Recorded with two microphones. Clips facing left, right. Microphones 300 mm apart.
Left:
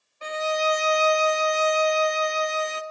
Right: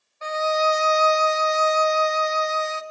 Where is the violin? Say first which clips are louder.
Right 3 dB; 40° left (ahead or behind), 0.6 m.